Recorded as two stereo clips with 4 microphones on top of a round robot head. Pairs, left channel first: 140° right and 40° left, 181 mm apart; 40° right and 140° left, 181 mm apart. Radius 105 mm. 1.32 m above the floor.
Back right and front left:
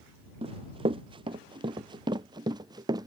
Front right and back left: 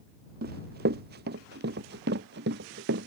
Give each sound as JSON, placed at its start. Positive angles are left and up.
{"t": 0.4, "sound": "running footsteps", "azimuth_deg": 105}